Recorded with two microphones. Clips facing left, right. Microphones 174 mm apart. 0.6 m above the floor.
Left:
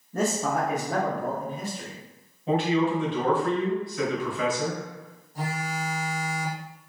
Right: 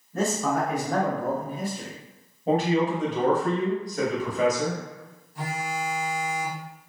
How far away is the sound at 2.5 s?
About 0.9 m.